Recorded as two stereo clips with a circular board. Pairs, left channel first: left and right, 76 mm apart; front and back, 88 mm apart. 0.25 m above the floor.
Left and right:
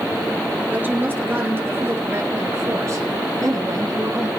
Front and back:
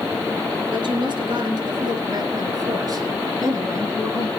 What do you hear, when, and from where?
0.7 s a woman speaking: 155° right, 4.5 m; by 4.3 s 125° right, 4 m